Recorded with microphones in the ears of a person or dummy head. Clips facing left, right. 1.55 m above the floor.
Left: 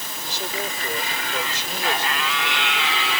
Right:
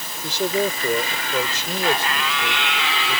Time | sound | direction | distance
0.2 | a man speaking | 60° right (ahead or behind) | ?